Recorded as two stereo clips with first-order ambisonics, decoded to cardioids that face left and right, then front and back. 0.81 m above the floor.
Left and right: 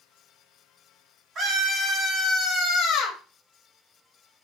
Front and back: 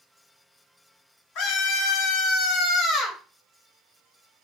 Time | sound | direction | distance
1.4 | a scream | 25° right | 1.1 m